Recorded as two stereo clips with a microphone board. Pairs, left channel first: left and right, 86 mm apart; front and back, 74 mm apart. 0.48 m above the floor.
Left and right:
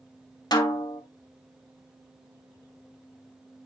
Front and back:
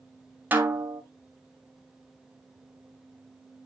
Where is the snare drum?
115° left, 1.8 m.